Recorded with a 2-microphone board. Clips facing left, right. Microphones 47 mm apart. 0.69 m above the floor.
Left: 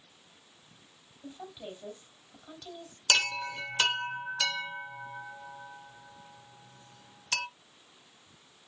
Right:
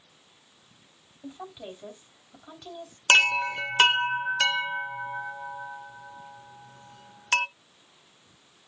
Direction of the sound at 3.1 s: 40° right (ahead or behind).